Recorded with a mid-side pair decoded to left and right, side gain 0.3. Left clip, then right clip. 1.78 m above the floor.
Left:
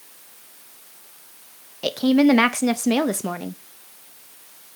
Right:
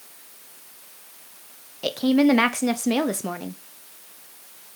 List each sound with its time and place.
1.8 s a woman speaking: 30° left, 0.8 m